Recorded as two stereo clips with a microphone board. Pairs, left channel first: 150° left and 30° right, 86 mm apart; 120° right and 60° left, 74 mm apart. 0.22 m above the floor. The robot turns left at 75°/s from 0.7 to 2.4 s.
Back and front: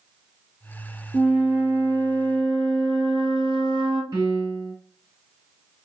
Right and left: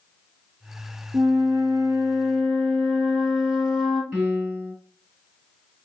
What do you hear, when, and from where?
1.1 s a flute: 75° left, 2 m; by 4.0 s 20° right, 2 m
4.1 s a piano: 5° right, 2.5 m